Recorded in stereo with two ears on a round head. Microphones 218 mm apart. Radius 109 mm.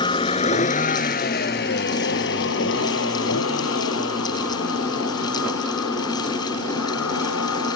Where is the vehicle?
20° left (ahead or behind); by 7.8 s 70° left (ahead or behind).